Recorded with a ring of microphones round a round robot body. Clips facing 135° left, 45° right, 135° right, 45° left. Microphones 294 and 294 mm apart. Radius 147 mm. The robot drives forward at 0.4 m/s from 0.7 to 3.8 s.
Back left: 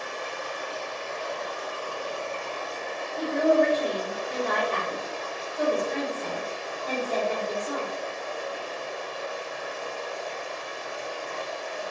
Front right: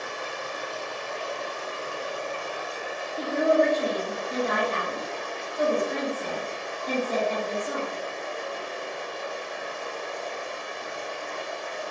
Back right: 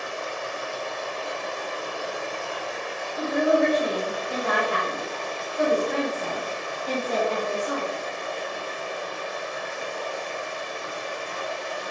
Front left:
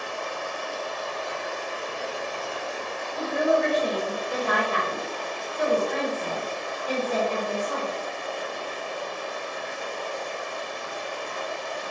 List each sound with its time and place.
0.0 s running water: 75° right, 1.1 m; by 11.9 s 140° right, 1.5 m
3.2 s a woman speaking: 120° right, 1.9 m; by 7.9 s 125° right, 2 m